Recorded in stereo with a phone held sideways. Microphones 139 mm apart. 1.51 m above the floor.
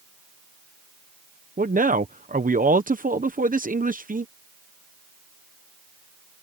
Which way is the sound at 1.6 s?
80° right.